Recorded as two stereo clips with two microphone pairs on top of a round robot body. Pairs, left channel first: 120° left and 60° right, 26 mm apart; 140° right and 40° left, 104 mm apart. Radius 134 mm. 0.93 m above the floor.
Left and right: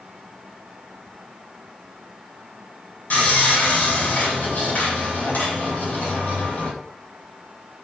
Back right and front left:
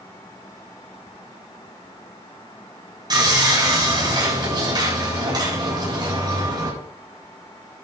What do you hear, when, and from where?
3.1 s sawing: 90° left, 9 m